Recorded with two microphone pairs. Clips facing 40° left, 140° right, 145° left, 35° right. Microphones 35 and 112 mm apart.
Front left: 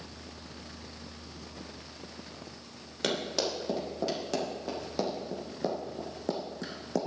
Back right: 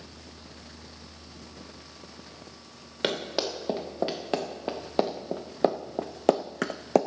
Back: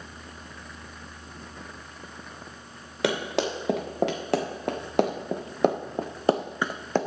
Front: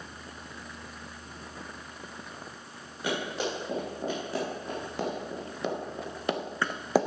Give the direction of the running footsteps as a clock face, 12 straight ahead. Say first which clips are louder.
Back right 2 dB, back 5 dB; 7 o'clock.